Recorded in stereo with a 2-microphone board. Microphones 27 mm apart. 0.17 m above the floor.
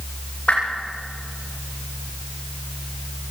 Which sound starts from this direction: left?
A whoosh, at 0.5 s.